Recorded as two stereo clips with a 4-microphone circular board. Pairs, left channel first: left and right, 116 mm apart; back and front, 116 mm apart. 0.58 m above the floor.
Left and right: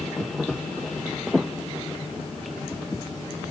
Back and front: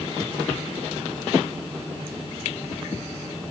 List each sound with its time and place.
Only background noise.